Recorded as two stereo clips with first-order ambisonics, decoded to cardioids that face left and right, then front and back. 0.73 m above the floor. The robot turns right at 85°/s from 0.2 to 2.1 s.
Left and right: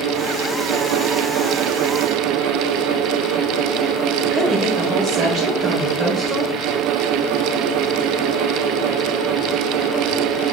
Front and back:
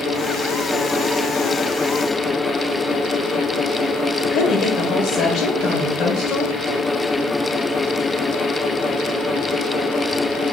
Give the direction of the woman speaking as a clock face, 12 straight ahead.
2 o'clock.